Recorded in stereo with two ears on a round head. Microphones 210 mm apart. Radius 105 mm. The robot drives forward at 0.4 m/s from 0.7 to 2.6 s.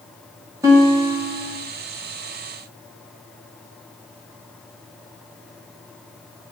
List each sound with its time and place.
0.6 s a guitar: 15° right (ahead or behind), 3 m; by 1.6 s 10° right (ahead or behind), 3 m